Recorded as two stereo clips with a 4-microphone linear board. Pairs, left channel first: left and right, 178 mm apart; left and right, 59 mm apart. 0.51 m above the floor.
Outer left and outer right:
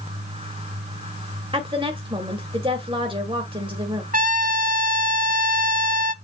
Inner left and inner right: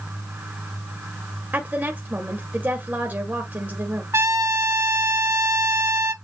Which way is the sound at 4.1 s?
50° right (ahead or behind).